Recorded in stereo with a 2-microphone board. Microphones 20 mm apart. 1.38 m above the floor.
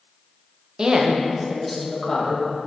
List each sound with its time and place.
0.8 s a woman speaking: 40° right (ahead or behind), 1.0 m; by 2.4 s 25° left (ahead or behind), 1.8 m